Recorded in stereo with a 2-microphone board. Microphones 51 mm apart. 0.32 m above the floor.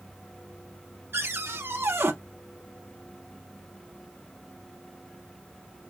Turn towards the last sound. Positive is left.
turn(degrees=-55)  # may be behind; listen again after turning